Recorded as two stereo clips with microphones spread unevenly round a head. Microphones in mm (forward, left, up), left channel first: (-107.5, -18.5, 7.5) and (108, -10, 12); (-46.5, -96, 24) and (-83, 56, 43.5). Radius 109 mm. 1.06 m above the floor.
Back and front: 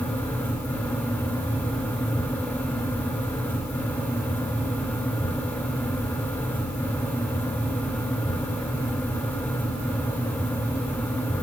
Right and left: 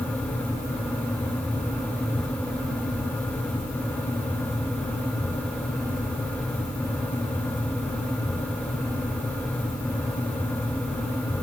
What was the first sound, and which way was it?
Only background noise.